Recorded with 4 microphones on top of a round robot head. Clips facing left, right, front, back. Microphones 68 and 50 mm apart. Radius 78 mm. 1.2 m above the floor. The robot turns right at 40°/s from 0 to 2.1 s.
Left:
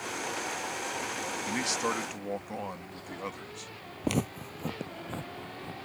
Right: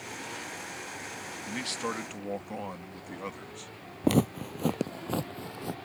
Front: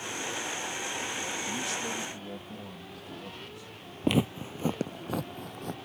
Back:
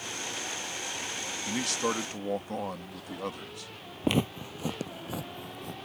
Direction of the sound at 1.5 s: 150° left.